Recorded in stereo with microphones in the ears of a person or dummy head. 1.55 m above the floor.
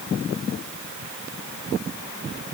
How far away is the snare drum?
I don't hear a snare drum.